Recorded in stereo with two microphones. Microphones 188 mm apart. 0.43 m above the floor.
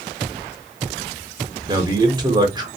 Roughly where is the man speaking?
Right.